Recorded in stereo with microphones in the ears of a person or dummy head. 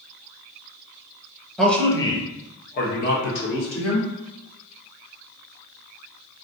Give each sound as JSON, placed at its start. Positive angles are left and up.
{"t": 1.6, "sound": "a man speaking", "side_deg": 5, "distance_m": 0.9}